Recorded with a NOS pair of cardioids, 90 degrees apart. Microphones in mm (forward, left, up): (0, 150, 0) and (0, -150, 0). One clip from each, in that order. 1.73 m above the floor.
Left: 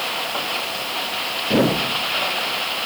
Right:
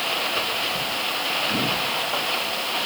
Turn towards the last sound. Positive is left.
No sound to turn to.